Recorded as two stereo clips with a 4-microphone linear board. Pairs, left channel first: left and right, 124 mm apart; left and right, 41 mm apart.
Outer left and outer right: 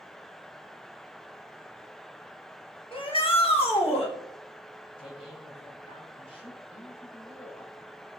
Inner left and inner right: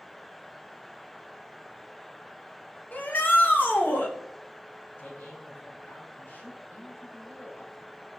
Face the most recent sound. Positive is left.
turn(degrees=50)  # may be behind; listen again after turning